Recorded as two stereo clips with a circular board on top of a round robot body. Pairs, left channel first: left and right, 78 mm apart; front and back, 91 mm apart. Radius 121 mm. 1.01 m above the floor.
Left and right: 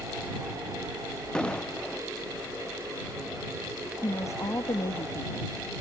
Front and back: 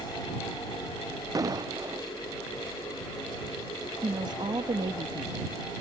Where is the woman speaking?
140° left.